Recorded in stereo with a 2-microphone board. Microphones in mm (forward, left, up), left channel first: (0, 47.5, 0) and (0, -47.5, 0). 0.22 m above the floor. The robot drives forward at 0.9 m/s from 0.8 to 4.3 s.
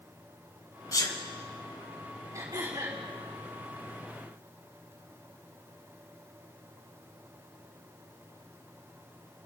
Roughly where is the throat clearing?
Right.